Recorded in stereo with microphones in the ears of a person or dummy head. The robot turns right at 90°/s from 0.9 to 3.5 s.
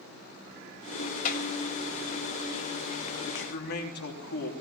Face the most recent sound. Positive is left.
turn(degrees=60)  # may be behind; listen again after turning